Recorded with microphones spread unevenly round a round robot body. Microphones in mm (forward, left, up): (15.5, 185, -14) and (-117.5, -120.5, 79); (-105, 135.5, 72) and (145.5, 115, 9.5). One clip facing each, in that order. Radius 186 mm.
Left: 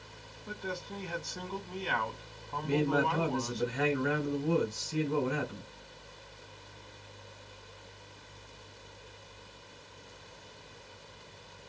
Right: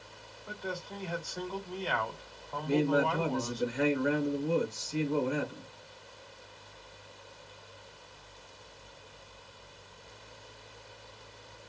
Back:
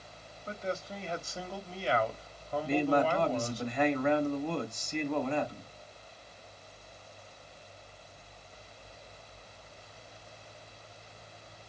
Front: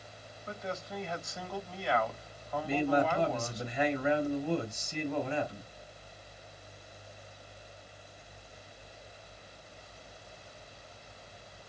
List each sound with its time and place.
0.5 s a man speaking: 115° left, 2.5 m
2.6 s a man speaking: 75° left, 3 m